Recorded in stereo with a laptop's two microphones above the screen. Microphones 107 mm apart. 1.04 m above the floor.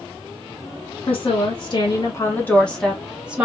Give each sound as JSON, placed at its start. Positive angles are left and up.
{"t": 1.1, "sound": "a woman speaking", "side_deg": 60, "distance_m": 1.2}